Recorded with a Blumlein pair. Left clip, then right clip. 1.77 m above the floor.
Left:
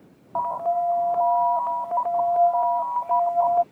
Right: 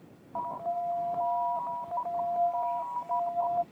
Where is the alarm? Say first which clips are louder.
Left 9 dB; 65° left.